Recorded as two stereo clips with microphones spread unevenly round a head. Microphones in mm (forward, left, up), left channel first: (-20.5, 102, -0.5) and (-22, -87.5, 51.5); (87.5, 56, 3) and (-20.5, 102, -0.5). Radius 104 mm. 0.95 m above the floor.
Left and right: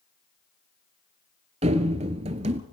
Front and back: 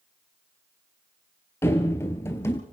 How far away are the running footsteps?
About 1.2 m.